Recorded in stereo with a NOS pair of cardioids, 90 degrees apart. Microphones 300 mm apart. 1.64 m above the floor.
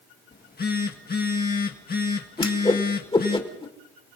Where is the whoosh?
15° left, 2.5 m.